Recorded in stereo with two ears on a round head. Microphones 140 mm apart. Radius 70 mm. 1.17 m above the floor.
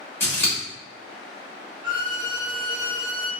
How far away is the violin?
About 0.9 m.